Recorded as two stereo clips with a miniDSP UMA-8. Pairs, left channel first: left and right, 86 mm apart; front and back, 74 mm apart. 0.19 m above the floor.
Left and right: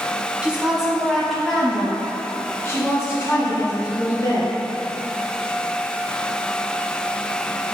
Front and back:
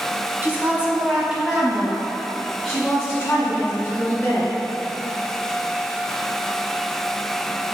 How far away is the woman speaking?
About 1.4 m.